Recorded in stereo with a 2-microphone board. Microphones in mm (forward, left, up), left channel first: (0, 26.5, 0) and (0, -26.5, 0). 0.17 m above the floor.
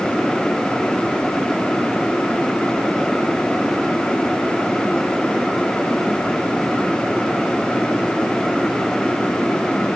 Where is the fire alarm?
No fire alarm in this recording.